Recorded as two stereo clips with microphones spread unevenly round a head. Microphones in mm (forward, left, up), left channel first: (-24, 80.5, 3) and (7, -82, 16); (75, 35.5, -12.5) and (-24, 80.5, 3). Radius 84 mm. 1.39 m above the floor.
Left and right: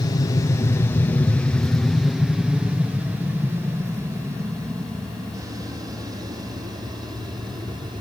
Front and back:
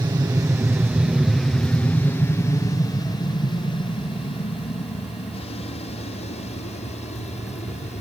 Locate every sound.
0.0 s an aircraft: 135° left; by 8.0 s 15° right